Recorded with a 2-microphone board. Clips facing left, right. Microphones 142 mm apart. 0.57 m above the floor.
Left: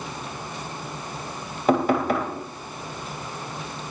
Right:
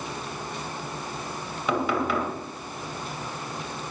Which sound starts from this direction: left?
Knocking, at 1.7 s.